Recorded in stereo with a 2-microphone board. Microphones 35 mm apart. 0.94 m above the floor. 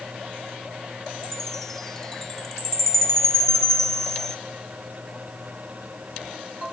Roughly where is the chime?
Centre.